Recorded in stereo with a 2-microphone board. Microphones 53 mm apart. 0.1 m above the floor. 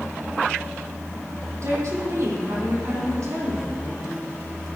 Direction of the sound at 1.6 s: 70° right (ahead or behind).